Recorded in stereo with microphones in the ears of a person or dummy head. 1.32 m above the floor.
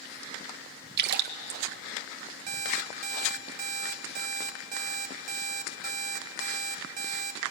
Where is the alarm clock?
40° right (ahead or behind), 1.0 m.